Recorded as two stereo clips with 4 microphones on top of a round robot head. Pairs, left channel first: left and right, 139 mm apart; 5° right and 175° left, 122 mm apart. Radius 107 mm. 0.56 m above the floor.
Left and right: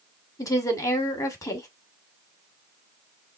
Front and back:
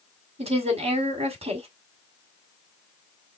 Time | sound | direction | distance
0.4 | a woman speaking | 155° left | 2 m